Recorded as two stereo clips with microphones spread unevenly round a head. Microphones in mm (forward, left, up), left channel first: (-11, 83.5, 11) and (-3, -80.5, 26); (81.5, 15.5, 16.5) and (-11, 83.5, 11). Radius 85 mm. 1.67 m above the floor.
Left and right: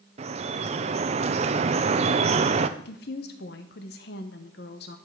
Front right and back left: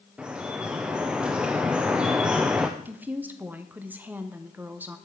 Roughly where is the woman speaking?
Left.